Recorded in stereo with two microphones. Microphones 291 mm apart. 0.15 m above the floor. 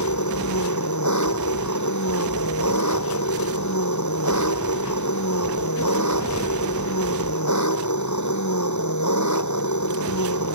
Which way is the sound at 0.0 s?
75° left (ahead or behind).